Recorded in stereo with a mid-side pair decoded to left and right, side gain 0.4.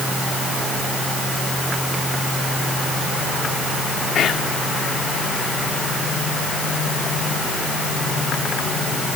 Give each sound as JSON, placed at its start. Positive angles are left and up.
{"t": 4.2, "sound": "whispering", "azimuth_deg": 65}